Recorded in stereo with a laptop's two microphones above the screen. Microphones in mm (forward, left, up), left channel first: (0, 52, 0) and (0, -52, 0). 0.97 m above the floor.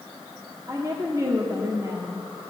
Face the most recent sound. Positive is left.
turn(degrees=-30)  # may be behind; listen again after turning